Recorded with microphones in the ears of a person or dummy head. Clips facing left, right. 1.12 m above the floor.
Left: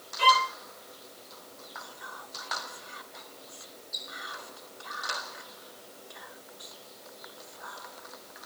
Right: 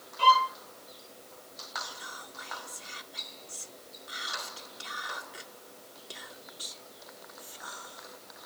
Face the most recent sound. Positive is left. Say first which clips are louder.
# even
turn(degrees=-45)  # may be behind; listen again after turning